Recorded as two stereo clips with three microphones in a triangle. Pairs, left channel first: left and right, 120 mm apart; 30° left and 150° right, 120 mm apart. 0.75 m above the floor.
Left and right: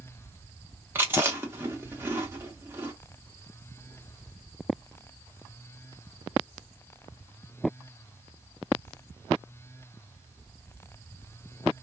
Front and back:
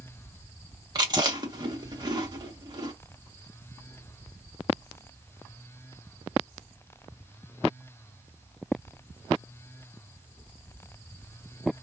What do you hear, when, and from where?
0.9 s chewing: 145° right, 1.1 m